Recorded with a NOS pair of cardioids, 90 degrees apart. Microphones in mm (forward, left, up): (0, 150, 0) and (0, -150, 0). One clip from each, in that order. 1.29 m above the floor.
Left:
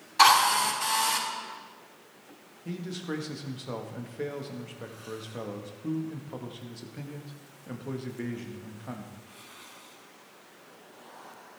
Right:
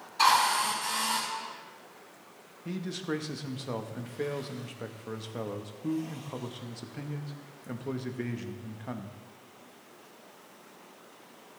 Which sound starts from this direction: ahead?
A man speaking, at 2.6 s.